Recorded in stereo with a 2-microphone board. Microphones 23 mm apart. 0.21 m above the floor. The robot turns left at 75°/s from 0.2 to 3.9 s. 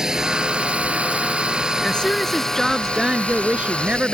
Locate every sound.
0.0 s a drone: 30° right; by 4.1 s 50° left
1.8 s a woman speaking: 60° left; by 4.1 s 95° right